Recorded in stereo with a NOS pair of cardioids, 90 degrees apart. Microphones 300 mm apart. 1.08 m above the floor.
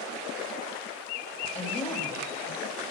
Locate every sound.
1.6 s a woman speaking: 20° left, 5.5 m